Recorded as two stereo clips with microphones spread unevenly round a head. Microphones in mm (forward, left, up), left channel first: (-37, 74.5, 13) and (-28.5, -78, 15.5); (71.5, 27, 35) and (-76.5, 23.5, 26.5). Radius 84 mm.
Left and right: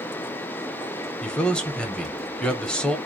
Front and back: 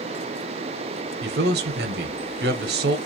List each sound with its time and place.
1.2 s a man speaking: straight behind, 0.8 m